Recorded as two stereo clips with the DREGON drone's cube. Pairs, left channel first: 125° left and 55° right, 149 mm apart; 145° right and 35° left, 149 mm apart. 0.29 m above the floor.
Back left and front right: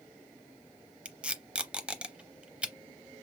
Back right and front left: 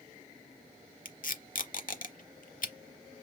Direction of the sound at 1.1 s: 135° right.